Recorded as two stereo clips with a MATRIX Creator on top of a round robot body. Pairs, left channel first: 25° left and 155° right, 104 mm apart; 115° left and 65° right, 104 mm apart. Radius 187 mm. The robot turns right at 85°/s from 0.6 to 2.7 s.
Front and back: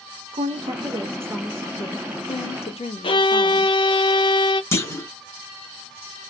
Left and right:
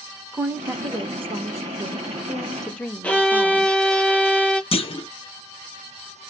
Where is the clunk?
85° left, 1.0 m.